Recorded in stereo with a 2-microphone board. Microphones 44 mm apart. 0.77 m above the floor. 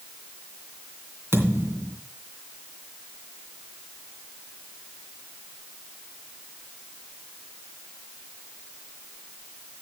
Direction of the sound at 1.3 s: 70° right (ahead or behind).